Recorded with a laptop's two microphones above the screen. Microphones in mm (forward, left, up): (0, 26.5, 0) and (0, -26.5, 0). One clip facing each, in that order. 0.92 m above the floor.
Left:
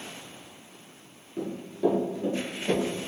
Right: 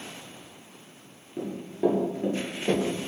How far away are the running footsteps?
About 0.9 m.